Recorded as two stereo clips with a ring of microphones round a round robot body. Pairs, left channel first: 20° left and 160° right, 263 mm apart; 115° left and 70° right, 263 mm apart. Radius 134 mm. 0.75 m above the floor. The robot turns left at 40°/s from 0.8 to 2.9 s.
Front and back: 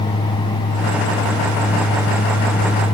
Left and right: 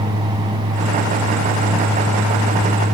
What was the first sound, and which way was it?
Only background noise.